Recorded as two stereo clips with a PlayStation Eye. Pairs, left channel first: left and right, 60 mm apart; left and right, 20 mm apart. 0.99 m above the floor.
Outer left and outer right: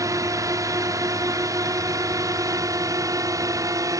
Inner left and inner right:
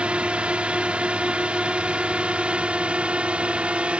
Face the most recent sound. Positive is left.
turn(degrees=-60)  # may be behind; listen again after turning